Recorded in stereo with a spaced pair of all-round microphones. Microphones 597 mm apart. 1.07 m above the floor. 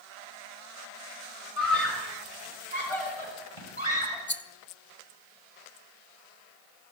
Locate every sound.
1.6 s a scream: 60° left (ahead or behind), 6 m; by 4.2 s 55° left (ahead or behind), 7 m
4.3 s a rattle: 20° left (ahead or behind), 0.9 m